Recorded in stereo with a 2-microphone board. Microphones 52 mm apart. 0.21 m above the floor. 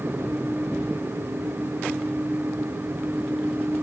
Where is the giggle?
I don't hear a giggle.